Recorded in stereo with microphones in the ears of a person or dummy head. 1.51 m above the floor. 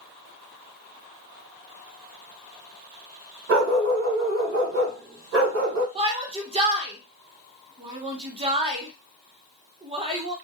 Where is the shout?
30° right (ahead or behind), 0.7 m.